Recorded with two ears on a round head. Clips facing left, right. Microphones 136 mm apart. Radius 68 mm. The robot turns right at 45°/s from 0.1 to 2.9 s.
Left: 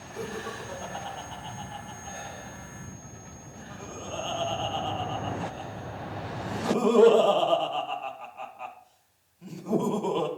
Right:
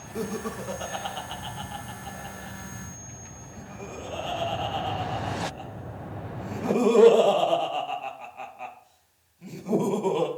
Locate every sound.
0.1 s laughter: 50° right (ahead or behind), 2.5 m; by 10.3 s 10° right (ahead or behind), 2.5 m